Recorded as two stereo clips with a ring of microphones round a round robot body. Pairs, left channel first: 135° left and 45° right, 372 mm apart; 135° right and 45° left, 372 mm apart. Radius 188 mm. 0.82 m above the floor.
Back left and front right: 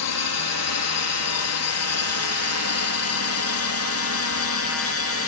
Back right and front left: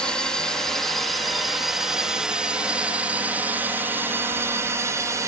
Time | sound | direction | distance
0.0 | a drone | 140° left | ?